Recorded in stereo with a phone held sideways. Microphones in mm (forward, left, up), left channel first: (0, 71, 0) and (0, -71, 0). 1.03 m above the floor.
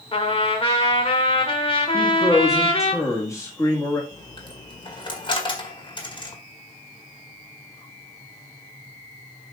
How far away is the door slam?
No door slam in this recording.